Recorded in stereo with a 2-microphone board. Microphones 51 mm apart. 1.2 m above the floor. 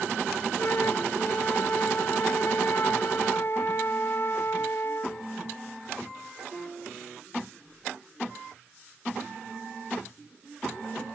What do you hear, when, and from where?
0.6 s a flute: 55° left (ahead or behind)